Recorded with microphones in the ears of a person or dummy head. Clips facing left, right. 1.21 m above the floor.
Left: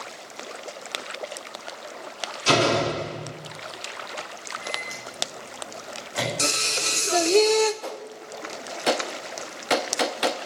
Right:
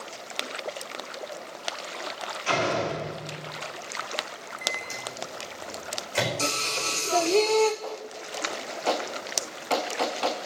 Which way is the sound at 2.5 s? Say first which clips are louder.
Left 5 dB; 55° left (ahead or behind).